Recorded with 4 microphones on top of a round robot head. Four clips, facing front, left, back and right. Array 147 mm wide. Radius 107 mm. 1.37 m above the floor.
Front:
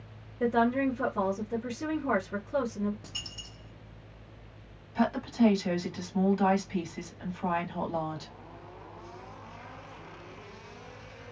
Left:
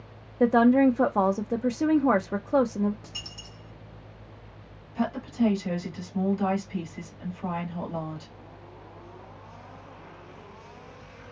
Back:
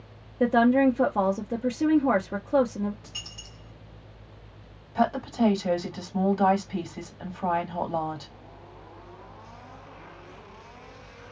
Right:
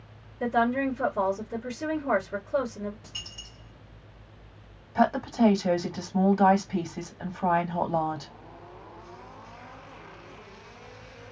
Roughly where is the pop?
No pop in this recording.